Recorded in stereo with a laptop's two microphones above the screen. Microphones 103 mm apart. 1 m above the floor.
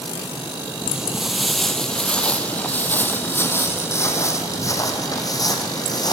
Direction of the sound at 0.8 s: 10° right (ahead or behind).